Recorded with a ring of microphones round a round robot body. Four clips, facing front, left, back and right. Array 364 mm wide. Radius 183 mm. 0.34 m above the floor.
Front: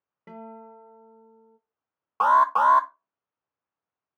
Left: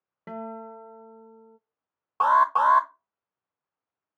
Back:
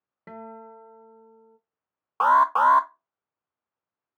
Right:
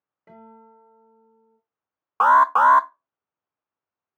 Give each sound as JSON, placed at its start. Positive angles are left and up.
{"t": 0.3, "sound": "a guitar", "azimuth_deg": 110, "distance_m": 0.7}
{"t": 2.2, "sound": "an alarm", "azimuth_deg": -95, "distance_m": 0.7}